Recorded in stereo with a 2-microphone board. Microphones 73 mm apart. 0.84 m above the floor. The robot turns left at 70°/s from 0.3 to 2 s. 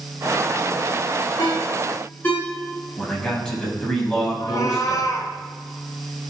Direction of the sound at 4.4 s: 55° left (ahead or behind).